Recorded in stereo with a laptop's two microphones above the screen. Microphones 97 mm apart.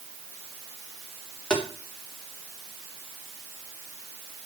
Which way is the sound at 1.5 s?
10° left (ahead or behind).